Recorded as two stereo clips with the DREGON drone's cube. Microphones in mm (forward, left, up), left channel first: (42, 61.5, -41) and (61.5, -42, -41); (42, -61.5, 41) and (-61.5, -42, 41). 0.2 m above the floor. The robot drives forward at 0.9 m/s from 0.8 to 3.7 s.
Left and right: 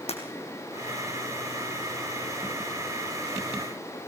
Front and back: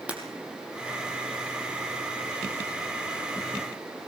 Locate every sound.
0.1 s breaking glass: 90° left, 4 m